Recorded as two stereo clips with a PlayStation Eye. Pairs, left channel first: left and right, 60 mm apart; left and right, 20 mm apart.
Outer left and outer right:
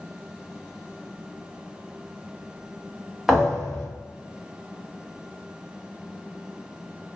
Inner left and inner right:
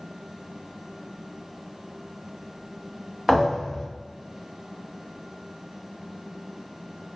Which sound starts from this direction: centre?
A thud, at 3.3 s.